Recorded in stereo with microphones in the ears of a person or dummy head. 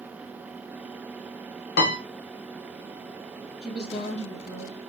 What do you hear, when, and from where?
1.8 s a piano: 60° left (ahead or behind), 0.6 m
3.6 s a woman speaking: 35° left (ahead or behind), 0.9 m